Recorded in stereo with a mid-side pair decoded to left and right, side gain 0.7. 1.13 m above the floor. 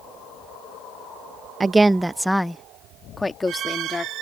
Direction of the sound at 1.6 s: 15° right.